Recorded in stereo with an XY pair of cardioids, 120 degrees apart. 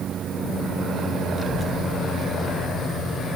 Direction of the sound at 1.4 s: 40° left.